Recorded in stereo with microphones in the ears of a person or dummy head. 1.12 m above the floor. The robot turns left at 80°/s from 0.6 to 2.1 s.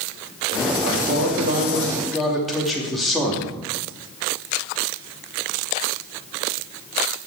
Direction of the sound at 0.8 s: 80° right.